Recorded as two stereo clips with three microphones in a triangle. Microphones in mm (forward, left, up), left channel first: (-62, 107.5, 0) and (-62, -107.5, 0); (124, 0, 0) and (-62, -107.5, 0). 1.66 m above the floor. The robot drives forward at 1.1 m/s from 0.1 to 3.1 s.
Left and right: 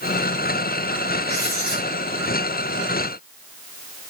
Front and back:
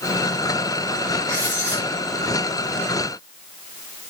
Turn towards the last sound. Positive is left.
turn(degrees=95)